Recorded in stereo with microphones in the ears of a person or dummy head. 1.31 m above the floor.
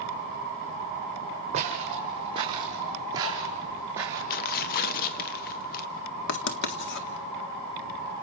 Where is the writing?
60° left (ahead or behind), 1.9 m.